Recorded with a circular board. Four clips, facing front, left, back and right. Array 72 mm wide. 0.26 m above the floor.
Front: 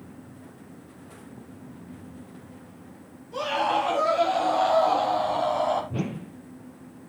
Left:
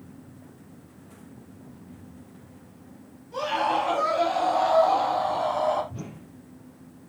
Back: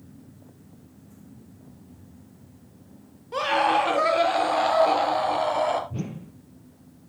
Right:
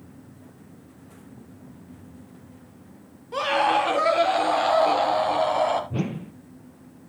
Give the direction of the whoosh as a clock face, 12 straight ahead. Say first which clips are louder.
Right 11 dB, front 3 dB; 2 o'clock.